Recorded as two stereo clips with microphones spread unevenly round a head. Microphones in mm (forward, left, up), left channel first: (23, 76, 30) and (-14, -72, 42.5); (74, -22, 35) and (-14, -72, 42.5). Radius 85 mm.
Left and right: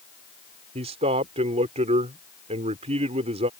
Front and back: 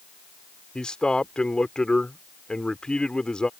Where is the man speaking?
50° right.